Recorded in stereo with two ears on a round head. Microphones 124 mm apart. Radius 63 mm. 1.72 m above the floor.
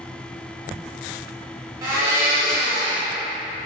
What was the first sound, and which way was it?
A blender, 20° right (ahead or behind).